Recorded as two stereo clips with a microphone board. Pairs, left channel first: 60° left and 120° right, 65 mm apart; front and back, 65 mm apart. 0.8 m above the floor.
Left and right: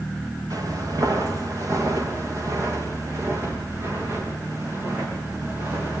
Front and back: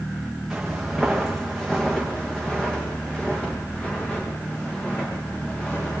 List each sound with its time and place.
0.5 s footsteps: 95° right, 5 m; by 6.0 s 60° right, 10.5 m